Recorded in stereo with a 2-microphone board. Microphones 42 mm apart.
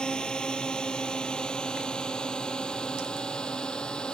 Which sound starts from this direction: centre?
A drone, at 0.0 s.